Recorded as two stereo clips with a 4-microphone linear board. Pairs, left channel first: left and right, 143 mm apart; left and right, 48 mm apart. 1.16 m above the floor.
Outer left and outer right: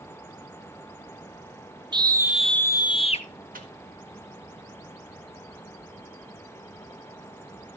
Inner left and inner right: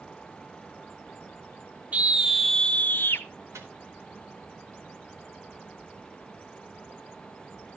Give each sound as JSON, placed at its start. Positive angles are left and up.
{"t": 1.9, "sound": "a scream", "side_deg": -35, "distance_m": 0.7}
{"t": 3.5, "sound": "a microwave", "side_deg": -80, "distance_m": 1.5}